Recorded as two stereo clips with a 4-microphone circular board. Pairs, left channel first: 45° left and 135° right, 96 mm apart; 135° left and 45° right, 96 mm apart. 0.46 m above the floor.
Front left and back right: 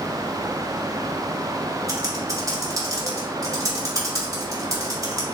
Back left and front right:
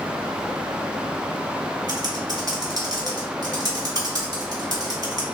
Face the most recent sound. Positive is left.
turn(degrees=-90)